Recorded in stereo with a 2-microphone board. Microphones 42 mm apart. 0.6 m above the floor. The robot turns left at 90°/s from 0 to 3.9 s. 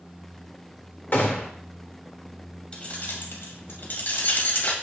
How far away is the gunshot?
About 1.7 m.